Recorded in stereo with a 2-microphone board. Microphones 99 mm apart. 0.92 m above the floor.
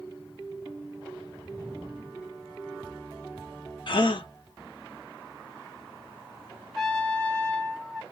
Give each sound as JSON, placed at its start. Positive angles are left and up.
{"t": 3.9, "sound": "a gasp", "side_deg": 55, "distance_m": 1.0}
{"t": 6.7, "sound": "a trumpet", "side_deg": 5, "distance_m": 1.4}